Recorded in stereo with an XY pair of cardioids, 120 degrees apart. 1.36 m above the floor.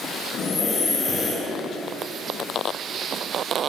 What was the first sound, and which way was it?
Breathing, 45° left.